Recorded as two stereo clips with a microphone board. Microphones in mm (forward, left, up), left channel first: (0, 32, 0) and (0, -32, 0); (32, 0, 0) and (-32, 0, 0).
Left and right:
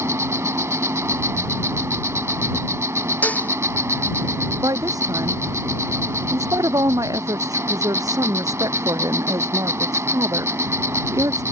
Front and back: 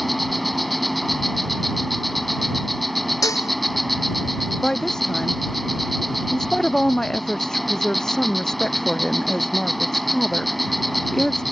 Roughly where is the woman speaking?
Right.